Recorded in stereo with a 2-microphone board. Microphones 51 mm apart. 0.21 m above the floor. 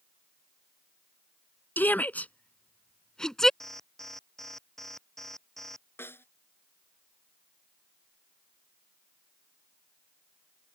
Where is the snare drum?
55° left (ahead or behind).